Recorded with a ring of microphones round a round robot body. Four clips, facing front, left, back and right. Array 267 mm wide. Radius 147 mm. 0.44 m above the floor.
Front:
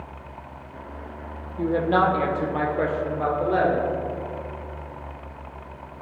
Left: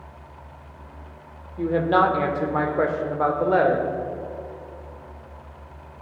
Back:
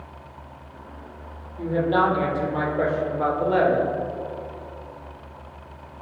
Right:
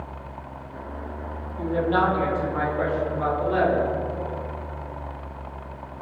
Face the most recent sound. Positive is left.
turn(degrees=100)